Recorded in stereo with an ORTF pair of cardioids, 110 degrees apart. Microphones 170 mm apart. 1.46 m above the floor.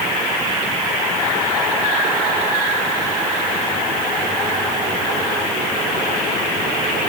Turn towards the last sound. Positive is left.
No sound to turn to.